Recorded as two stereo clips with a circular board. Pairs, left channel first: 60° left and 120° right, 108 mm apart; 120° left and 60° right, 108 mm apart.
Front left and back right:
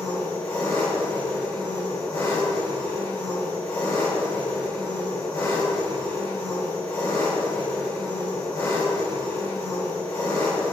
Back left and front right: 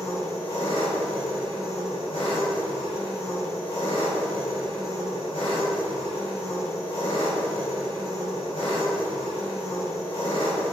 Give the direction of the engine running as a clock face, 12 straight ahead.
8 o'clock.